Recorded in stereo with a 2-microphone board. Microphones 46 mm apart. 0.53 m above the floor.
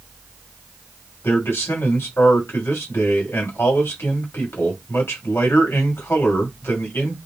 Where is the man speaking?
70° left (ahead or behind), 2.5 m.